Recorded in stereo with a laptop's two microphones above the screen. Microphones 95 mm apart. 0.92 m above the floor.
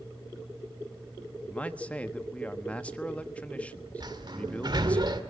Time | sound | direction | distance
1.4 | a man speaking | 15° left (ahead or behind) | 1.2 m
4.0 | a sliding door | 50° right (ahead or behind) | 1.9 m